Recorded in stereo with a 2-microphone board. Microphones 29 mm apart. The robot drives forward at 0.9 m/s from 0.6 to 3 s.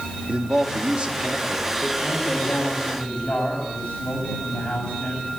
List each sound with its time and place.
0.3 s a man speaking: 40° right (ahead or behind), 3.5 m; by 1.9 s 30° right (ahead or behind), 4.5 m
2.0 s a man speaking: 40° left (ahead or behind), 9 m; by 5.3 s 35° left (ahead or behind), 10 m